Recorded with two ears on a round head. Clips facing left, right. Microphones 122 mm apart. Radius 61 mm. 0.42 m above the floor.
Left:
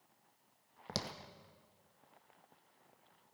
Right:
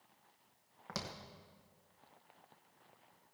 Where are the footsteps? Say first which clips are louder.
Left 2 dB; 35° left (ahead or behind), 1.0 m.